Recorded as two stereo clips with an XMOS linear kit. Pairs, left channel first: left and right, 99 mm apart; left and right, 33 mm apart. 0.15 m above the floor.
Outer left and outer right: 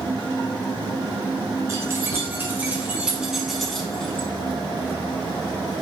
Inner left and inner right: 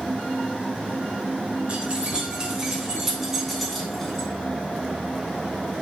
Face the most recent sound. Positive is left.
turn(degrees=15)  # may be behind; listen again after turning